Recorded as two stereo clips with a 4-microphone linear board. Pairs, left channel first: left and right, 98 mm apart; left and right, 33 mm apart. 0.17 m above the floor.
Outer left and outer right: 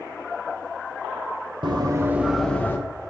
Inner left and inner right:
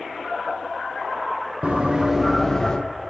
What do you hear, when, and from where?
1.6 s running footsteps: 50° right (ahead or behind), 1.2 m; by 2.8 s 20° left (ahead or behind), 1.3 m